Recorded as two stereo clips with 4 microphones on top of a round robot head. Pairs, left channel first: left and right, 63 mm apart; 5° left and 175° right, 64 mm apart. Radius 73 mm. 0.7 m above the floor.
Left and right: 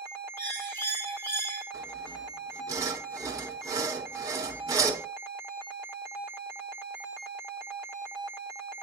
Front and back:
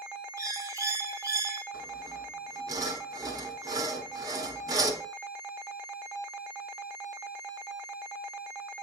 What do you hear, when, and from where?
0.4 s a bird: 150° left, 1.8 m
1.7 s sawing: 135° right, 1.1 m